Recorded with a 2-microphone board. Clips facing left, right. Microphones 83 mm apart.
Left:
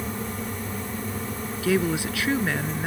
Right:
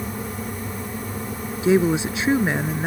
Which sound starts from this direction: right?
A woman speaking, at 1.6 s.